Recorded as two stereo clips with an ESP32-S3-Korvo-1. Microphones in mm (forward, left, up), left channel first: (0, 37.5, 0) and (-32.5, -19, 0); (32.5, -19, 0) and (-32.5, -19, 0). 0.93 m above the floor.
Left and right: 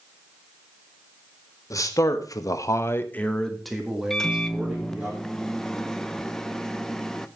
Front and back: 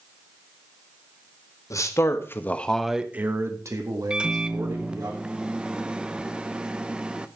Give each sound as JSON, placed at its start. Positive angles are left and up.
{"t": 1.7, "sound": "a man speaking", "azimuth_deg": 30, "distance_m": 1.9}
{"t": 4.1, "sound": "a microwave", "azimuth_deg": 135, "distance_m": 0.6}